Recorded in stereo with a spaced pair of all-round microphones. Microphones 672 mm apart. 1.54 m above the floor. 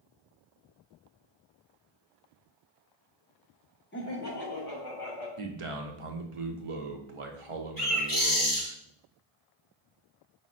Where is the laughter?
15° left (ahead or behind), 1.1 m; by 5.3 s 35° left (ahead or behind), 2.5 m.